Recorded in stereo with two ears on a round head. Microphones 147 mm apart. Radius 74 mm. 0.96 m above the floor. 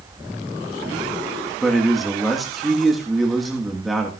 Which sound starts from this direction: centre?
A man speaking, at 1.6 s.